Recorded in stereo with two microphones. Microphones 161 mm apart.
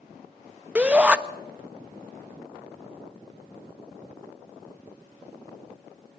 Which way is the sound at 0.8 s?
10° right (ahead or behind).